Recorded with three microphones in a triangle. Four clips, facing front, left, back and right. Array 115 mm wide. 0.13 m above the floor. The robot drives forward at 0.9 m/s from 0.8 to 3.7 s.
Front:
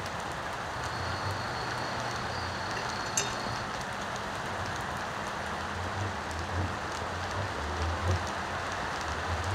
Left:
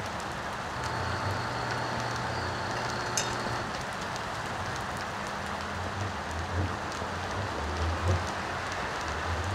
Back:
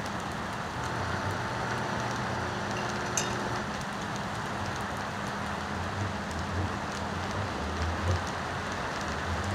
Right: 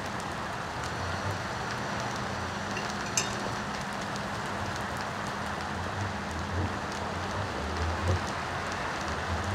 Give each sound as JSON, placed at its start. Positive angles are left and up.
{"t": 2.8, "sound": "dishes clattering", "azimuth_deg": -85, "distance_m": 6.0}